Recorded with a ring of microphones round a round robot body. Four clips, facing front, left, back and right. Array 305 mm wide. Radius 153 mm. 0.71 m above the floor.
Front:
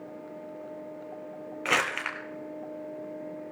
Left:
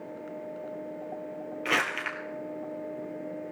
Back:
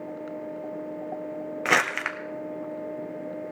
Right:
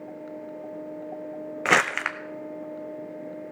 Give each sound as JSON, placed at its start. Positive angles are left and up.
{"t": 1.6, "sound": "crumpling", "azimuth_deg": -110, "distance_m": 1.3}